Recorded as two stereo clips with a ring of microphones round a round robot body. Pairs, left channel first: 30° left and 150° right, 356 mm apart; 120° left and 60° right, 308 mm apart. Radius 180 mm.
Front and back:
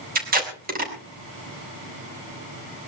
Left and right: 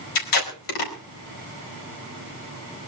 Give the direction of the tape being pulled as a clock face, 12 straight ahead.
7 o'clock.